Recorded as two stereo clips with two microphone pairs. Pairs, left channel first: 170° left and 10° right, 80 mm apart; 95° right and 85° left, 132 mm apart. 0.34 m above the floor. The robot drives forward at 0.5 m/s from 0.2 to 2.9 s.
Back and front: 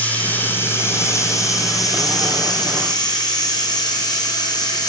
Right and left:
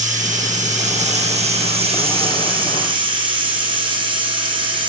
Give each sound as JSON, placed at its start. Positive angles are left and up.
{"t": 0.0, "sound": "running water", "azimuth_deg": 100, "distance_m": 1.5}